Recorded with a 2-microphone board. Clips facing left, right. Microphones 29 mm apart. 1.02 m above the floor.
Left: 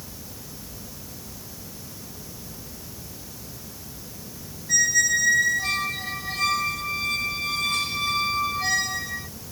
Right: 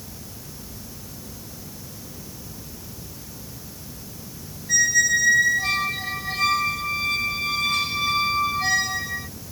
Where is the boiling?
No boiling in this recording.